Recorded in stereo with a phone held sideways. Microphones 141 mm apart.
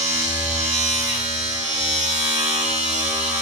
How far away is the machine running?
About 4.5 m.